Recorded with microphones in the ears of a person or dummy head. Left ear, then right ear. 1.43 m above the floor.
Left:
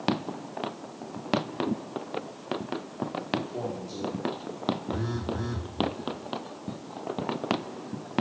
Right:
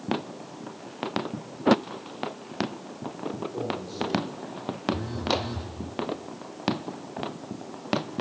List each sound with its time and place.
3.4 s a man speaking: 30° left (ahead or behind), 3 m; by 4.8 s 60° left (ahead or behind), 3 m
4.9 s a phone buzzing: 45° left (ahead or behind), 1.3 m